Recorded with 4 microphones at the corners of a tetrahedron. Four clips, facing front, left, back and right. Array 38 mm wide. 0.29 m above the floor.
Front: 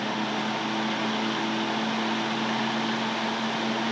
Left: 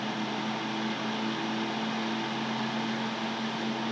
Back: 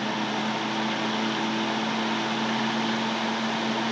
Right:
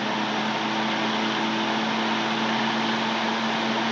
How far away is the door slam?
No door slam in this recording.